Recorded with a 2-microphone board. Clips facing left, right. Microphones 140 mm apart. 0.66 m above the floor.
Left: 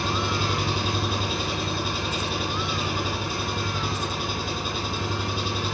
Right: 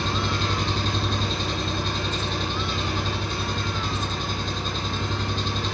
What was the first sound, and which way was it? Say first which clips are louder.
An engine running: even; 10° left (ahead or behind).